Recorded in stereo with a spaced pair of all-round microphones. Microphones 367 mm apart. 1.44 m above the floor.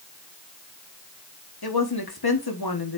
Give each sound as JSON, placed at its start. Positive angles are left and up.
{"t": 1.6, "sound": "a woman speaking", "side_deg": 85, "distance_m": 1.3}